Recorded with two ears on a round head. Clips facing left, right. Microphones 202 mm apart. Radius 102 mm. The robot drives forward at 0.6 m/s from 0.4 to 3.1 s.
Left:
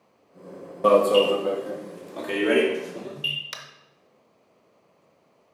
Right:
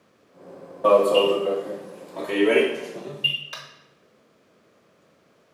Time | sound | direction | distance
0.8 | an alarm | 35° left (ahead or behind) | 1.1 m
3.5 | tapping | 35° left (ahead or behind) | 0.9 m